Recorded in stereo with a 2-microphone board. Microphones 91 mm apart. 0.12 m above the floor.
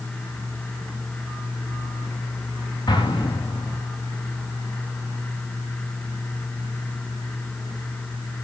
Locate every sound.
2.9 s an explosion: 50° left (ahead or behind), 7.5 m